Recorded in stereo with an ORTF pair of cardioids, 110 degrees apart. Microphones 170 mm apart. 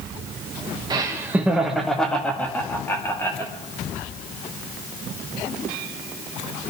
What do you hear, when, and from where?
0.9 s laughter: 25° right, 1.1 m; by 3.5 s 20° left, 2.5 m